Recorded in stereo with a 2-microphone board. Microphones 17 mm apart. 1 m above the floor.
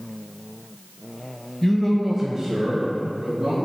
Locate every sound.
1.6 s a man speaking: 30° left (ahead or behind), 0.8 m; by 3.6 s 60° right (ahead or behind), 2 m